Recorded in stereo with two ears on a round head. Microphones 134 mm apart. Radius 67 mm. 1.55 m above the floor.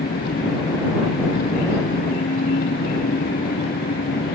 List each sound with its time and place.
0.0 s an engine running: 75° left (ahead or behind)